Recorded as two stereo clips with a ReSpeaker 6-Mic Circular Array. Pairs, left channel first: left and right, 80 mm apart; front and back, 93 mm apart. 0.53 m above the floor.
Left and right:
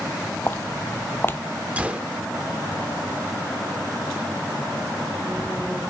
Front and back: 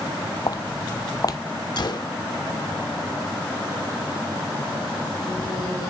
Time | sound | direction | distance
0.5 | footsteps | 35° left | 0.9 m
1.8 | a gunshot | 20° right | 0.9 m